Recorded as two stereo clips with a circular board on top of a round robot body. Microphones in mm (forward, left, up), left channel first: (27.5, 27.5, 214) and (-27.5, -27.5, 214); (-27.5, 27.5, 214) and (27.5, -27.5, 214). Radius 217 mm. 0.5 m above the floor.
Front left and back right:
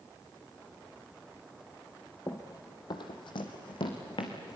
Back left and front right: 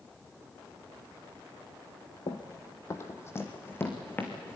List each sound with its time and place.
2.3 s running footsteps: 105° left, 0.6 m; by 4.6 s 65° left, 3 m